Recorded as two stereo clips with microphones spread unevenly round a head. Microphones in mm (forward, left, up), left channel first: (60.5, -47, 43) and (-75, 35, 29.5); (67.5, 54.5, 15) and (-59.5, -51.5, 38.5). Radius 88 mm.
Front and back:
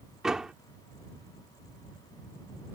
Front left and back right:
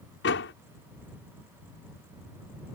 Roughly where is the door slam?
Ahead left.